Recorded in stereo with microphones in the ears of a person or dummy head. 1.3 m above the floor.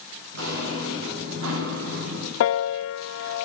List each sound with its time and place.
0.3 s footsteps: 70° right (ahead or behind), 5.5 m; by 2.3 s 75° right (ahead or behind), 6.5 m
2.4 s a piano: 80° left, 0.6 m